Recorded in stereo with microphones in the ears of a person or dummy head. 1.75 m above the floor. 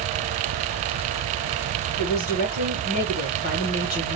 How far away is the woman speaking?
About 1.6 m.